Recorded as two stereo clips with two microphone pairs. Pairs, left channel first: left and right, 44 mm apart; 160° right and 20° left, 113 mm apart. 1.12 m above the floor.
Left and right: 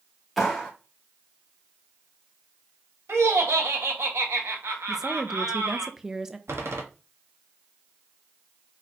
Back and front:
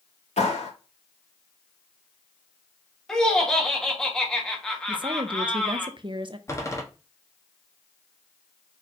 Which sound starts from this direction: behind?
A clap, at 0.4 s.